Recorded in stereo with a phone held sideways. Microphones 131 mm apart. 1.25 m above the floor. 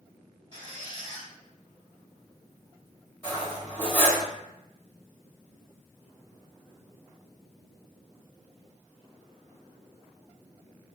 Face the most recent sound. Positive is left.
turn(degrees=20)  # may be behind; listen again after turning